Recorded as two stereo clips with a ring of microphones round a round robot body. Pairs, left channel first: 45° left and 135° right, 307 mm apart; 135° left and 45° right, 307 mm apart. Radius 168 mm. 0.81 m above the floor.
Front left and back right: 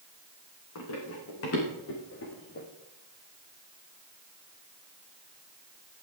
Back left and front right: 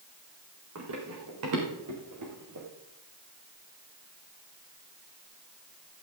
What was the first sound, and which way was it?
Running footsteps, straight ahead.